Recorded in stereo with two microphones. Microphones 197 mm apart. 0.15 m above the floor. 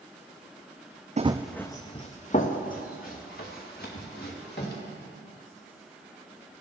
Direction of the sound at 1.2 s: 40° right (ahead or behind).